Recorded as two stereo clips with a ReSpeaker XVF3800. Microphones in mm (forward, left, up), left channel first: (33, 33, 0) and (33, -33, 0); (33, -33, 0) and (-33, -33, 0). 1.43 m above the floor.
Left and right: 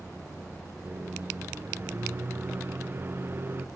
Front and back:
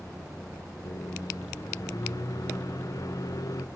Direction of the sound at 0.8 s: 30° right.